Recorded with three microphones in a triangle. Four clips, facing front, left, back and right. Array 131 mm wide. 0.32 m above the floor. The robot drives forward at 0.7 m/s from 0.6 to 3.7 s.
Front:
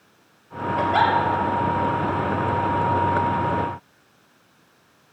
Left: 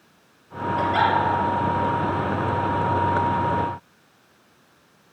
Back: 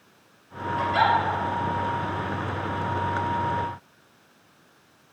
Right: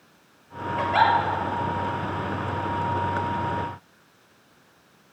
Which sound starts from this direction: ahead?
A giggle, at 0.8 s.